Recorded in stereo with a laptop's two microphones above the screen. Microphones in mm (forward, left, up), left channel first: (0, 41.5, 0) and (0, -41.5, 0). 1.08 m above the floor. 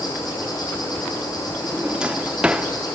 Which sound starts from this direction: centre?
A drawer, at 1.6 s.